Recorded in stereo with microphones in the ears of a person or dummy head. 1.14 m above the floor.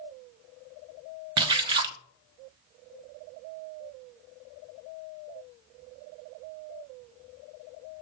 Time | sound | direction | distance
1.4 | a splash | 30° right (ahead or behind) | 0.5 m